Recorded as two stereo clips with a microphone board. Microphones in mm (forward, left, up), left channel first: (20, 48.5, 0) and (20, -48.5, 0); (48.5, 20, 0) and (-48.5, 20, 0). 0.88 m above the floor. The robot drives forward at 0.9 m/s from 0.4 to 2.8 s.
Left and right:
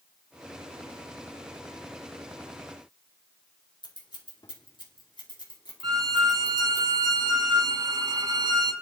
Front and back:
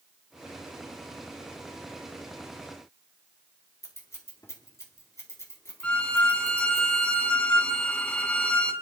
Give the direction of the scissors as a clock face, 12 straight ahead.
10 o'clock.